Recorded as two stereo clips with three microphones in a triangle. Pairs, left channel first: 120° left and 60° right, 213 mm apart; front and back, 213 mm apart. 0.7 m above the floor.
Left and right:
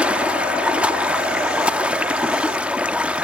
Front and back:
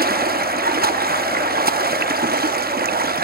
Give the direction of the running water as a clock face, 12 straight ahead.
5 o'clock.